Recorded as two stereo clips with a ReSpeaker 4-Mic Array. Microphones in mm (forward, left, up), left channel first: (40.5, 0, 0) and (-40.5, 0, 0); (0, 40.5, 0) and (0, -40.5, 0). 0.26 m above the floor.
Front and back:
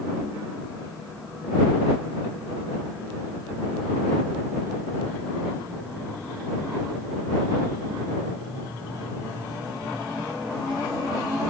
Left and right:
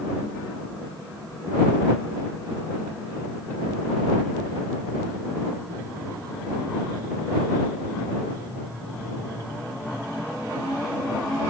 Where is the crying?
I don't hear crying.